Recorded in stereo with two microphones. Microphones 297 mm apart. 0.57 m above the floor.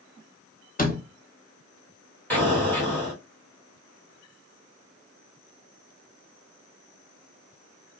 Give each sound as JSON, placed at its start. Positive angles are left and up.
{"t": 0.8, "sound": "a door slam", "side_deg": 30, "distance_m": 0.9}
{"t": 2.3, "sound": "an explosion", "side_deg": 5, "distance_m": 1.9}